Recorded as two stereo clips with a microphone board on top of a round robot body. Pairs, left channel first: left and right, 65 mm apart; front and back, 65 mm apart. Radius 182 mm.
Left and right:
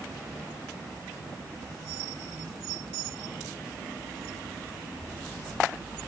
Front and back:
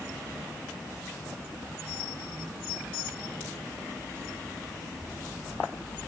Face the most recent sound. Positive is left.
No sound to turn to.